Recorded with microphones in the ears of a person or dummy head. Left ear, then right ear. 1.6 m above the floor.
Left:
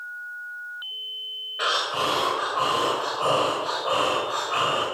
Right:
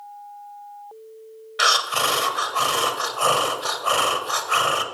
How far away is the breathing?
About 0.9 m.